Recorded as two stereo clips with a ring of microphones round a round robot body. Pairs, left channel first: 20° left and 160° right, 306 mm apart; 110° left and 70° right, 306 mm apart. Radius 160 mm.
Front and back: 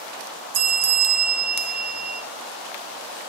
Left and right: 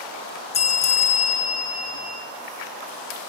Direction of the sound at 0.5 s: Straight behind.